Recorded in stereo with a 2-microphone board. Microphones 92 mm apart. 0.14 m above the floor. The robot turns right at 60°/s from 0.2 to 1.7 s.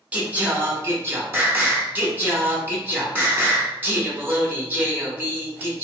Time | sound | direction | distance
0.1 | singing | 15° right (ahead or behind) | 0.9 m